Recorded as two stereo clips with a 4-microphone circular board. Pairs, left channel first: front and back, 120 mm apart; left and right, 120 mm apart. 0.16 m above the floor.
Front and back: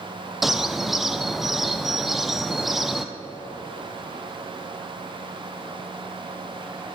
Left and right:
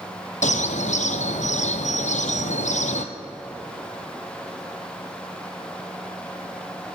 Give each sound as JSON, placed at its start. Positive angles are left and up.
{"t": 0.4, "sound": "a bird", "azimuth_deg": 90, "distance_m": 1.0}